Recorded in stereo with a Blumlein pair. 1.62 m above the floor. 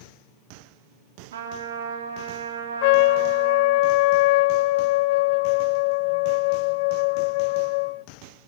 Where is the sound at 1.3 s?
60° right, 2.5 m.